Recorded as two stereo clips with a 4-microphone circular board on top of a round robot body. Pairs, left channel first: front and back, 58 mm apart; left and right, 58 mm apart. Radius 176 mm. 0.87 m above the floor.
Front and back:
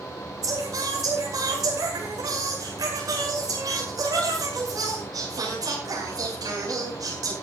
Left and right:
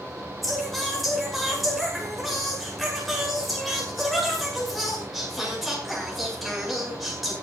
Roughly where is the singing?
Behind.